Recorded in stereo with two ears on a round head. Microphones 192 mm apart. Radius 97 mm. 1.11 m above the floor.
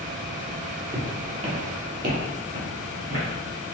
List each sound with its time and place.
0.9 s footsteps: 10° right (ahead or behind), 1.2 m; by 3.6 s 70° right (ahead or behind), 3 m